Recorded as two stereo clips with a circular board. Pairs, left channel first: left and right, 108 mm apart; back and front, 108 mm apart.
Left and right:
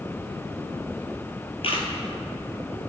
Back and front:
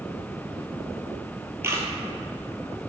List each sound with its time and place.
1.6 s a camera shutter: 65° left, 1.8 m